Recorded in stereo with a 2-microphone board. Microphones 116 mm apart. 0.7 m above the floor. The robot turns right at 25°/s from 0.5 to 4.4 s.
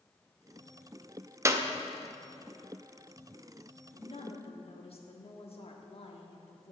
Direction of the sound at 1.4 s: 25° right (ahead or behind).